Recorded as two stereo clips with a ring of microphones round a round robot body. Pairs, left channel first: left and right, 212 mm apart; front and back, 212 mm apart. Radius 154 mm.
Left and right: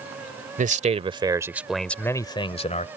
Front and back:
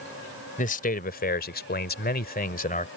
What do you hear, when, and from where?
0.6 s a man speaking: 50° right; by 2.9 s 45° left